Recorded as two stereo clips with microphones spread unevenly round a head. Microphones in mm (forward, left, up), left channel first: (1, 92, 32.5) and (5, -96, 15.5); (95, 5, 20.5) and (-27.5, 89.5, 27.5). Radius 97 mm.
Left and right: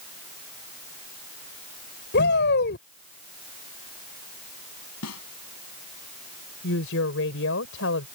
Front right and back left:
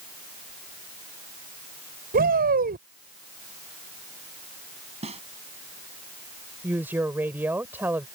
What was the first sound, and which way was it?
A shout, 125° left.